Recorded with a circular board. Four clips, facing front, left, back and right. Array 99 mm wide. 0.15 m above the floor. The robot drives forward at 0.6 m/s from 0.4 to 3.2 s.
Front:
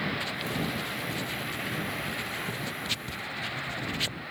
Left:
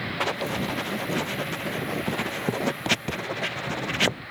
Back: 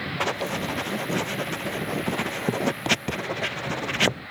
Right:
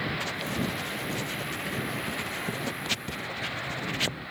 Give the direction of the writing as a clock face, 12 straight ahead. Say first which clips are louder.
Left 4 dB, back 6 dB; 7 o'clock.